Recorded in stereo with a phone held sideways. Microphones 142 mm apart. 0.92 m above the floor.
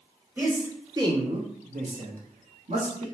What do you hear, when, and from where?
0.4 s a man speaking: 15° right (ahead or behind), 1.4 m; by 3.1 s 55° right (ahead or behind), 1.2 m